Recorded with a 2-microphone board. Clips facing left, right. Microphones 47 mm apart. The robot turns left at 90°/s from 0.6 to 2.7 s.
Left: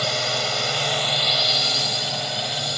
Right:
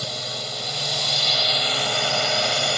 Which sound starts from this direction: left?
A drone, at 0.0 s.